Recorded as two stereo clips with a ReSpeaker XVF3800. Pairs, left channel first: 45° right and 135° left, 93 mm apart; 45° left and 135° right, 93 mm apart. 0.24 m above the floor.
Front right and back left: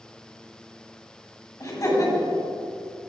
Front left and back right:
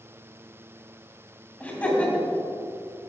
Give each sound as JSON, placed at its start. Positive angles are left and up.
{"t": 1.6, "sound": "laughter", "azimuth_deg": -20, "distance_m": 1.9}